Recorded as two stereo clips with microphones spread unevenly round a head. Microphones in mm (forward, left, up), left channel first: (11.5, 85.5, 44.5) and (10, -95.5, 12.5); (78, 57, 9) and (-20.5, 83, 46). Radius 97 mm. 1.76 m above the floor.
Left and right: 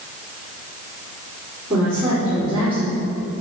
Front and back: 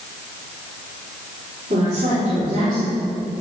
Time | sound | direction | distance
1.7 | a woman speaking | 175° right | 5.5 m